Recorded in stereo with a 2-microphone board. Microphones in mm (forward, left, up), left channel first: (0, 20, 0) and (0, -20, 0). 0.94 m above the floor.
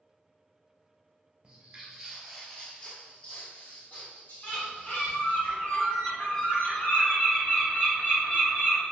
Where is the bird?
45° left (ahead or behind), 1.1 m.